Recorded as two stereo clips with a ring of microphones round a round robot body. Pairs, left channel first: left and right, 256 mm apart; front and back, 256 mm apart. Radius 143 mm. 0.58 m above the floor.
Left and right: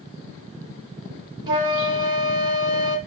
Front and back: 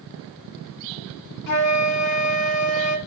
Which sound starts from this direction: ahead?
A flute, at 1.5 s.